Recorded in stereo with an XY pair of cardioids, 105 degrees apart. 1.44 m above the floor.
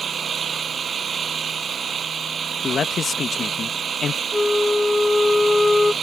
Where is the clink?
I don't hear a clink.